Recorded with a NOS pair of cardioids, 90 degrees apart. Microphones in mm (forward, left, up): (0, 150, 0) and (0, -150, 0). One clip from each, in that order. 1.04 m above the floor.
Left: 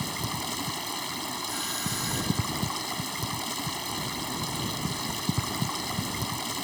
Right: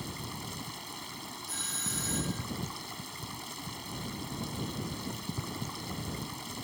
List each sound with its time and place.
0.0 s running water: 60° left
1.5 s a doorbell: 25° left